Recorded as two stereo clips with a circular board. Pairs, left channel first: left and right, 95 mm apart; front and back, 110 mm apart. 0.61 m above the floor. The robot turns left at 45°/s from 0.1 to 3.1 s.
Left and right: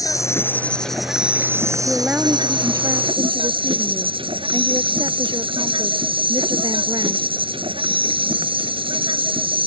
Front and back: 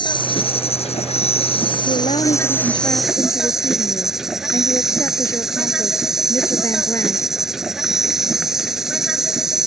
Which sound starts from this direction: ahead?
A woman speaking, at 1.9 s.